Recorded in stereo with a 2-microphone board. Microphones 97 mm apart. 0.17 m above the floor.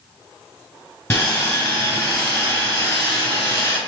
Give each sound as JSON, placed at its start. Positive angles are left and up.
{"t": 1.1, "sound": "sawing", "side_deg": 25, "distance_m": 3.0}